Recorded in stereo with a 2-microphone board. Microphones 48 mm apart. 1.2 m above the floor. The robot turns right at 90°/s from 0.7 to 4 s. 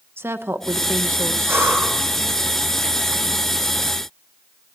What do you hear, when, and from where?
0.2 s a woman speaking: 120° right, 1.0 m; by 1.6 s 35° right, 1.0 m
1.5 s breathing: 115° right, 4.5 m; by 2.0 s 70° right, 4.5 m